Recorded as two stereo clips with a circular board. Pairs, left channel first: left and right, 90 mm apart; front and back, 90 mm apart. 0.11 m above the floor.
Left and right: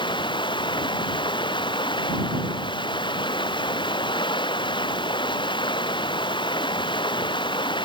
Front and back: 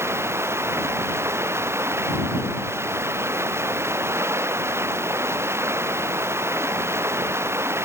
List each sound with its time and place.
0.0 s running water: 120° left